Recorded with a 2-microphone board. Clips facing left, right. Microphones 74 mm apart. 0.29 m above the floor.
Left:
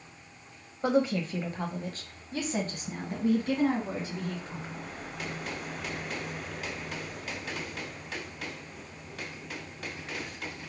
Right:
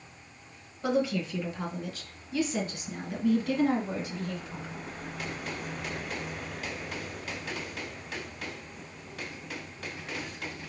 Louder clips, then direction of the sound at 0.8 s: Left 2 dB; 35° left (ahead or behind).